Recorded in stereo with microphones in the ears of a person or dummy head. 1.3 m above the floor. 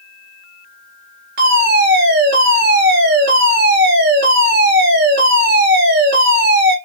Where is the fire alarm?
55° right (ahead or behind), 2 m.